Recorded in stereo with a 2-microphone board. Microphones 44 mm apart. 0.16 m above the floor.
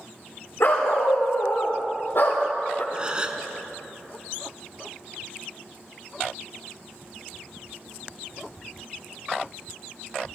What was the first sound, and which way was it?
A dog barking, 85° left.